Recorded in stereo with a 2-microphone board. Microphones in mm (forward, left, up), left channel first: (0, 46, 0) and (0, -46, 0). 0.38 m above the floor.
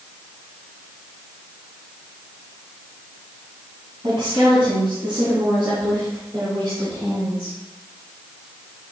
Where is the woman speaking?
65° right (ahead or behind), 2.5 m; by 7.5 s 50° right (ahead or behind), 6.5 m.